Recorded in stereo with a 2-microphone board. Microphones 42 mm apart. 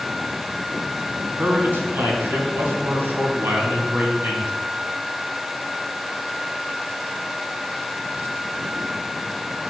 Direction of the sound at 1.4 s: 60° right (ahead or behind).